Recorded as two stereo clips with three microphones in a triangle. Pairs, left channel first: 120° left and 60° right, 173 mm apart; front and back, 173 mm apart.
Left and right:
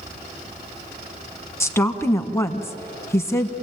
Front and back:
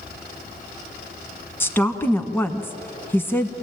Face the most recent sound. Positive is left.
turn(degrees=60)